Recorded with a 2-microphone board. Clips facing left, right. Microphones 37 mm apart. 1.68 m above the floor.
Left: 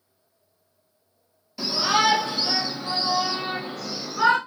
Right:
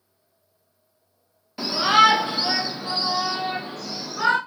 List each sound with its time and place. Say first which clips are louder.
1.6 s a shout: right 5 dB; 35° right (ahead or behind), 0.7 m; by 4.4 s 5° left (ahead or behind), 1.3 m